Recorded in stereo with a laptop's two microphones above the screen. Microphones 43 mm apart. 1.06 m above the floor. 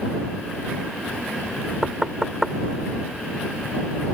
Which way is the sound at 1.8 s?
5° right (ahead or behind).